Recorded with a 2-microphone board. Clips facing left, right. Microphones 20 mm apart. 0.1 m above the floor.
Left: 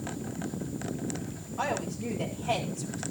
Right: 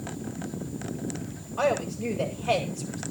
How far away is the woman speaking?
About 9.5 m.